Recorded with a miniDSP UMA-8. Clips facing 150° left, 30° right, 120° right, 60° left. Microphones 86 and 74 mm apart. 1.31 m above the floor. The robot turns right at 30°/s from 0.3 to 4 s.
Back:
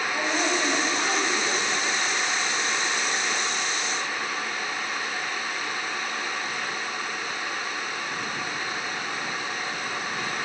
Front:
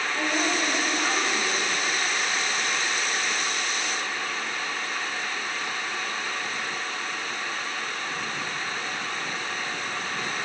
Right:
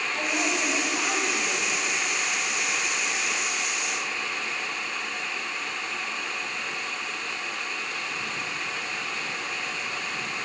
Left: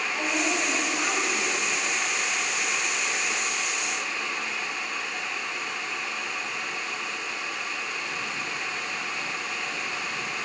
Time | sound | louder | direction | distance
0.1 | a woman speaking | even, even | 150° left | 7 m